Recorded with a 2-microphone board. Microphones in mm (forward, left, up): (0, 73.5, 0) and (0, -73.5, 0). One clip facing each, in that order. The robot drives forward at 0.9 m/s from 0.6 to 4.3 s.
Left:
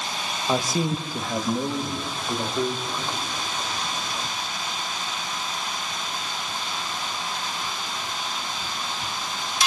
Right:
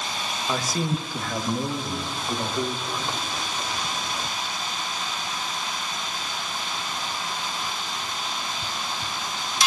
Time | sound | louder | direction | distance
0.5 | a man speaking | left 3 dB | 20° left (ahead or behind) | 0.9 m